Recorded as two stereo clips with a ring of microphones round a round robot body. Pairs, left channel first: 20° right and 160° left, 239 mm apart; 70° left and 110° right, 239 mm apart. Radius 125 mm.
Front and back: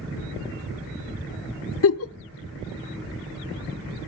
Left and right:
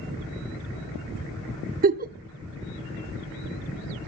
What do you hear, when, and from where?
1.8 s a giggle: 55° right, 0.8 m